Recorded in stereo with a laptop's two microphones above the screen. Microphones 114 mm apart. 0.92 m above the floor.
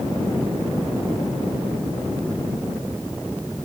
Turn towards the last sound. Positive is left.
No sound to turn to.